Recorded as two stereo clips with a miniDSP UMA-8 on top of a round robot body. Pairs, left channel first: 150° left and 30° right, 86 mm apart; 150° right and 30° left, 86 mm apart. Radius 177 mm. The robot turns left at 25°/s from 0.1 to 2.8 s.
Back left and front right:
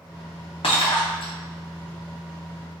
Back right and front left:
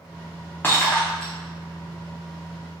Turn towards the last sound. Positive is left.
turn(degrees=85)